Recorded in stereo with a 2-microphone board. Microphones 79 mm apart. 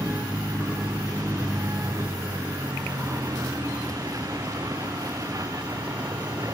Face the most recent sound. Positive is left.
turn(degrees=-45)  # may be behind; listen again after turning